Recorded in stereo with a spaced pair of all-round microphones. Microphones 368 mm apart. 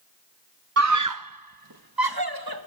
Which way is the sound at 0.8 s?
40° right (ahead or behind).